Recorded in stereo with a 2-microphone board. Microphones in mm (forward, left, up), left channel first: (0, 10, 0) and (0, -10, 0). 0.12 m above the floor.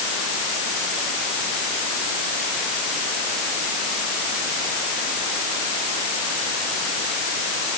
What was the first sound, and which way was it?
Only background noise.